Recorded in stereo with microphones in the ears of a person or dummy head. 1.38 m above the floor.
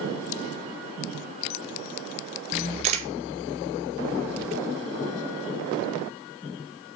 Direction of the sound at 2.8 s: 35° right (ahead or behind).